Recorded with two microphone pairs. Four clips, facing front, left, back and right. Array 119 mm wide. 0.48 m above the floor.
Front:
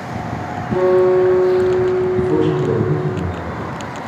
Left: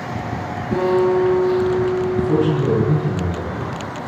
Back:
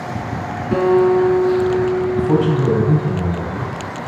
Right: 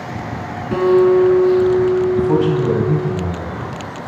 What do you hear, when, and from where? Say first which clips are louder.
0.7 s a guitar: right 5 dB, front 1 dB; 125° right, 4.5 m
2.1 s a man speaking: right 3 dB, front 1 dB; 145° right, 3.5 m